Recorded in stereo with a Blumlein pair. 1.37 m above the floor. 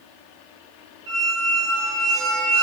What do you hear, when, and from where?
1.1 s a squeak: 55° right, 1.5 m